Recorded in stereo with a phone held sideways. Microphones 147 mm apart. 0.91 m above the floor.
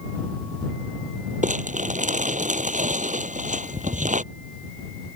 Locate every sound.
1.4 s crumpling: 65° right (ahead or behind)